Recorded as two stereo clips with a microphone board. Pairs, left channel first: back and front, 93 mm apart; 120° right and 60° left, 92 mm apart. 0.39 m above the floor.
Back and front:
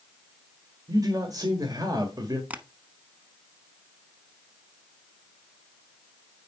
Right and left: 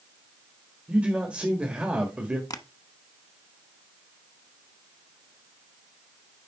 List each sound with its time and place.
0.9 s a man speaking: 10° right, 1.5 m
2.5 s tapping: 75° right, 0.8 m